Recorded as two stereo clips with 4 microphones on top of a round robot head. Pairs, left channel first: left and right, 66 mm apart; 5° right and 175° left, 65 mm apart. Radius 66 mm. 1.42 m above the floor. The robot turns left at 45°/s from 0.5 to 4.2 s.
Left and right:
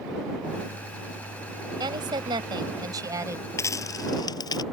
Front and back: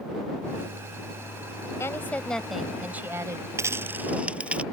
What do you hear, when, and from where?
1.8 s a woman speaking: 65° right; by 3.5 s 135° right
3.6 s a dropped coin: 135° left; by 4.6 s 105° left